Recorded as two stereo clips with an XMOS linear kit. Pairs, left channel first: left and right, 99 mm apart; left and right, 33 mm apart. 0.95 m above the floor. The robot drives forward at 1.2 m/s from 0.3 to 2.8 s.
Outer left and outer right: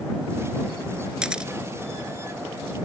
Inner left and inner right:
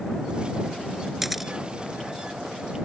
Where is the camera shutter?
10° right (ahead or behind).